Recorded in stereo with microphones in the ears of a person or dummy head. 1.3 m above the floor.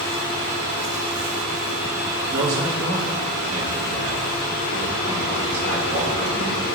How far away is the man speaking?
About 2.5 m.